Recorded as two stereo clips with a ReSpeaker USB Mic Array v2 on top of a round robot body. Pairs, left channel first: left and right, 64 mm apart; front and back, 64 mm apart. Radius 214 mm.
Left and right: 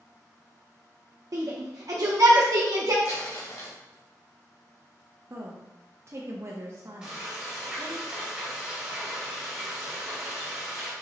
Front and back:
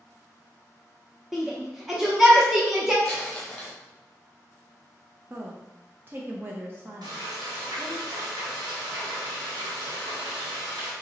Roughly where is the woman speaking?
Behind right.